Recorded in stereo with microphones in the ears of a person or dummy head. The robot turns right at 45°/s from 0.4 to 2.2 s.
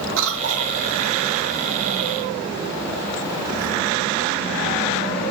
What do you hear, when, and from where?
0.2 s a cough: 75° right (ahead or behind), 1.6 m; by 0.8 s 60° right (ahead or behind), 1.6 m